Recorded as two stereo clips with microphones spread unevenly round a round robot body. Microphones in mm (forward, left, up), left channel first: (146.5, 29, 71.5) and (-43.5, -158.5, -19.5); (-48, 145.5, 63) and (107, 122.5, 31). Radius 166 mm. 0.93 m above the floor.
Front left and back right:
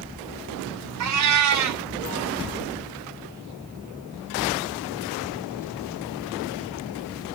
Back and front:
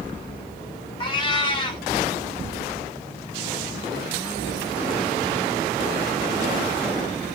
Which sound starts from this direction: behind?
A cat meowing, at 1.0 s.